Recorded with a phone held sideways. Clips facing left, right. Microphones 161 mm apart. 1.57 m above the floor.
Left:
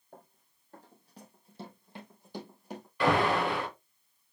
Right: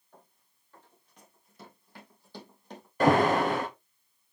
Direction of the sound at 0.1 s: 50° left (ahead or behind).